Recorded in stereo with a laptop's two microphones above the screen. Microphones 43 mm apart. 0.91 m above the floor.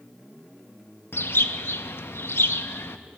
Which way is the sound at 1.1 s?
65° left (ahead or behind).